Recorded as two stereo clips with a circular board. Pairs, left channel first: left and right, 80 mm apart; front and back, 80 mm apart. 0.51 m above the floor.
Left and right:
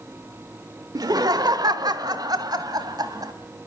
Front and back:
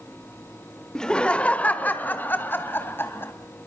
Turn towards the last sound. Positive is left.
turn(degrees=-60)